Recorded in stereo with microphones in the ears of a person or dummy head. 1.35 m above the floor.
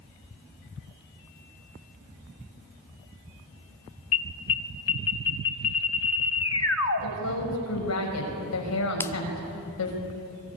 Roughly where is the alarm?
Left.